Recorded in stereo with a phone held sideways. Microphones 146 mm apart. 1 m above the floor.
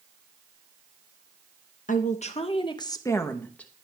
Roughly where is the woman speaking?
Left.